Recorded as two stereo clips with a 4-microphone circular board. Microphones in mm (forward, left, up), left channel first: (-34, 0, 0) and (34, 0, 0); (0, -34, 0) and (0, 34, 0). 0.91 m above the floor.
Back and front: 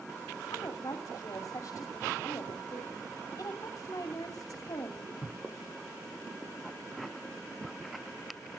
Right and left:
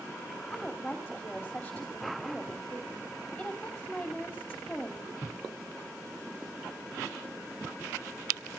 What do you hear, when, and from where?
0.5 s a woman speaking: 170° right, 2.5 m